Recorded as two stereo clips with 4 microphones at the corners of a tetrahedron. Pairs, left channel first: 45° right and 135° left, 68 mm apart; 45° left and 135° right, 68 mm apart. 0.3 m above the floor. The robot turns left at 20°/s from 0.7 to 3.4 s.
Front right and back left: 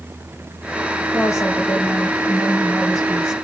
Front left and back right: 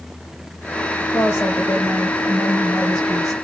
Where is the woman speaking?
5° right, 2 m; by 3.3 s 50° right, 2 m.